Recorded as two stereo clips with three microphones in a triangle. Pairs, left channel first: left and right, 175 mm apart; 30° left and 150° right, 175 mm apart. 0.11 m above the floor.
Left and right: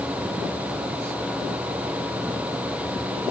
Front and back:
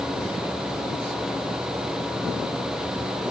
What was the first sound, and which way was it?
Only background noise.